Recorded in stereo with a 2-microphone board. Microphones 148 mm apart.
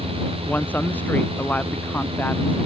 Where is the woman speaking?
10° left (ahead or behind).